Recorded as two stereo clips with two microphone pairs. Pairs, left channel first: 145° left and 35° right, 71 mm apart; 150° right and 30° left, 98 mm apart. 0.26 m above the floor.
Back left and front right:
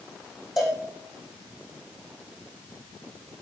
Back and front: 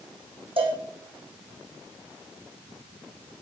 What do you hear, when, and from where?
0.6 s a cowbell: 50° left, 4 m